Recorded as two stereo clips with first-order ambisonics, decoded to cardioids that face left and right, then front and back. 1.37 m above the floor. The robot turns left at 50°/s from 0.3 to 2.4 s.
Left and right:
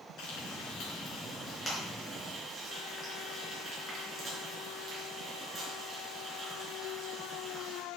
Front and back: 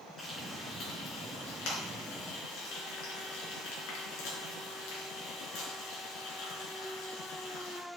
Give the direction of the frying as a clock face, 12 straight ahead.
9 o'clock.